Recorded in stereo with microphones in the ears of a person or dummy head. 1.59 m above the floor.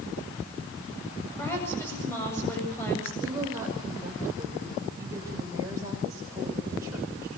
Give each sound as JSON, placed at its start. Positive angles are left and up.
{"t": 1.4, "sound": "a woman speaking", "side_deg": 15, "distance_m": 8.5}
{"t": 3.2, "sound": "a woman speaking", "side_deg": -15, "distance_m": 8.5}